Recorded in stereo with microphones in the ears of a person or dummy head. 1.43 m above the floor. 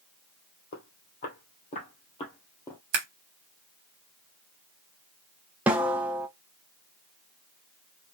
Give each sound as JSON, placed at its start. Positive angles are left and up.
{"t": 0.7, "sound": "footsteps", "side_deg": 50, "distance_m": 2.0}
{"t": 2.9, "sound": "scissors", "side_deg": -55, "distance_m": 1.5}
{"t": 5.7, "sound": "a snare drum", "side_deg": -5, "distance_m": 0.5}